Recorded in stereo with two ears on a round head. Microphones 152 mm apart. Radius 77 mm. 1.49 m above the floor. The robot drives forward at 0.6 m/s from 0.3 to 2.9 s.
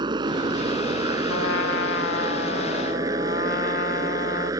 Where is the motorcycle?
25° right (ahead or behind); by 4.6 s 20° right (ahead or behind).